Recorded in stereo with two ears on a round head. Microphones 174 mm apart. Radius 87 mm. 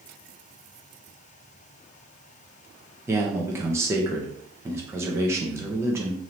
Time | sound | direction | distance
3.1 | a man speaking | 15° right (ahead or behind) | 0.7 m